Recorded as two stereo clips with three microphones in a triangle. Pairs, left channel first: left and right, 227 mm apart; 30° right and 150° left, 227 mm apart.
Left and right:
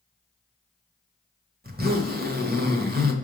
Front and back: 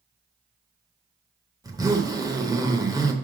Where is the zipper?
135° right, 1.0 m.